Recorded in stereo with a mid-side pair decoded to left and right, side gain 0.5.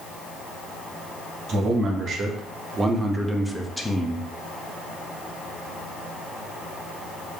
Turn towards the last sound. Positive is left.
turn(degrees=25)